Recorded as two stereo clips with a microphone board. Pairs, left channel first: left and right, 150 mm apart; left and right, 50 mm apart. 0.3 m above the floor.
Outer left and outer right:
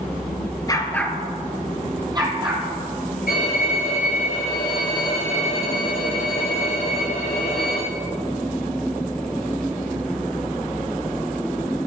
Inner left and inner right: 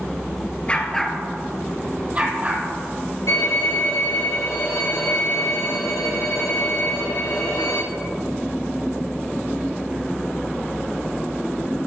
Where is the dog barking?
25° left (ahead or behind), 1.7 m; by 2.6 s 35° right (ahead or behind), 3.5 m.